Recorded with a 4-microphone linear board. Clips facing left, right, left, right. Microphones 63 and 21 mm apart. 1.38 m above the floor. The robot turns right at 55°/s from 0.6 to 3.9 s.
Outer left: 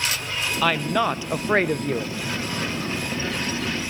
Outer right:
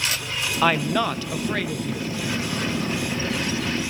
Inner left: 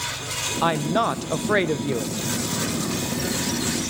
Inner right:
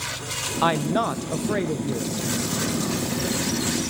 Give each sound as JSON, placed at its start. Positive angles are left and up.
{"t": 0.6, "sound": "a woman speaking", "azimuth_deg": -15, "distance_m": 0.7}